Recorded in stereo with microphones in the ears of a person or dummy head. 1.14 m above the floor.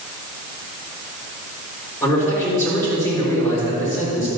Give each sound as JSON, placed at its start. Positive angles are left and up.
{"t": 2.0, "sound": "a man speaking", "side_deg": 15, "distance_m": 3.5}